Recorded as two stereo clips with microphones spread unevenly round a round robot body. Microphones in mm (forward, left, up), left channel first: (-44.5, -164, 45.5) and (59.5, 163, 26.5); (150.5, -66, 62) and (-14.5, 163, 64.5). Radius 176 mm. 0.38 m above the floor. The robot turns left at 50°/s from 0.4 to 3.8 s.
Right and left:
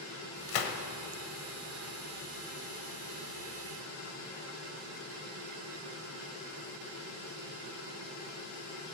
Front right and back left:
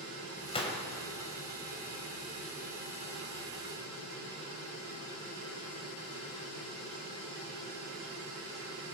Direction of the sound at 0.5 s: 120° right.